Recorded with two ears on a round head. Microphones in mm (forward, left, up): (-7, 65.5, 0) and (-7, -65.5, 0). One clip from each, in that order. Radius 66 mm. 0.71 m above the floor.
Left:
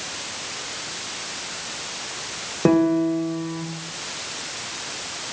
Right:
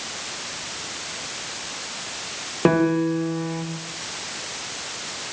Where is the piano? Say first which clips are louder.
Left 1 dB; 70° right (ahead or behind), 3 m.